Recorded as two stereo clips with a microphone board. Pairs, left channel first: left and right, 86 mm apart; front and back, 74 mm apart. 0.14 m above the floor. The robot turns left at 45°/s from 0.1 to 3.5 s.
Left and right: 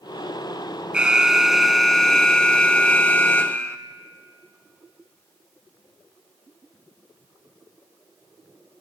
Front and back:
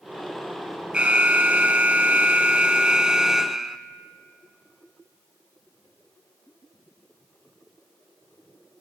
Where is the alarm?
140° right, 0.9 m; by 3.8 s 105° left, 0.9 m.